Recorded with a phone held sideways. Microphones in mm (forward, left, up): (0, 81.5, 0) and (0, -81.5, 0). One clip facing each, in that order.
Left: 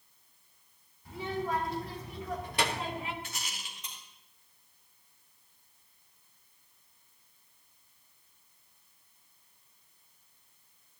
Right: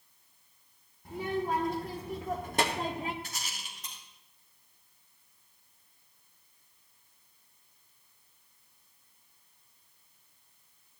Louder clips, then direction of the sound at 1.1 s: Right 2 dB; 55° right (ahead or behind).